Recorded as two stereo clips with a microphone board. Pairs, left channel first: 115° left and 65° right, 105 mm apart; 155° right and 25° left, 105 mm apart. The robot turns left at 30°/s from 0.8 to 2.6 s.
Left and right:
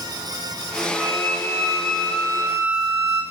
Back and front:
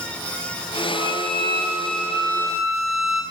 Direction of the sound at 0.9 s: 60° left.